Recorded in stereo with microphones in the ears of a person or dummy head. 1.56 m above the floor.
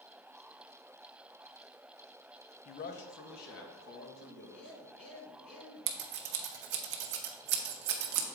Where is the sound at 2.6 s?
40° left (ahead or behind), 0.7 m; by 4.7 s 75° left (ahead or behind), 3 m.